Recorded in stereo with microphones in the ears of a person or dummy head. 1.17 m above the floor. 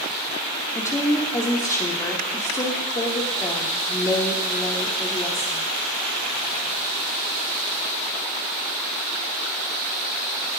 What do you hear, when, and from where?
0.8 s a woman speaking: 15° left (ahead or behind), 2 m